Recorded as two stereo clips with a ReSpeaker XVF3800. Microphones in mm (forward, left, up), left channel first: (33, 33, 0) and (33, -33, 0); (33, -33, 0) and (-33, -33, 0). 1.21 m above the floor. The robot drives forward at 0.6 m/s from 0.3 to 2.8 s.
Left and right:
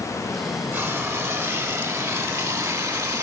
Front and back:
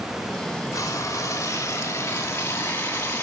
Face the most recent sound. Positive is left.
turn(degrees=-60)